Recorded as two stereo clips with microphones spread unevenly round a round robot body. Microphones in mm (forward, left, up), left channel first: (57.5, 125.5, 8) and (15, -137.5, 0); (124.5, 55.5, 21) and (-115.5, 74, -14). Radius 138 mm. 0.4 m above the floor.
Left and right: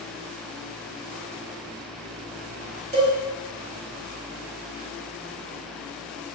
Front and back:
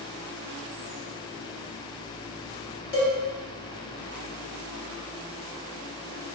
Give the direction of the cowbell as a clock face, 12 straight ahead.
2 o'clock.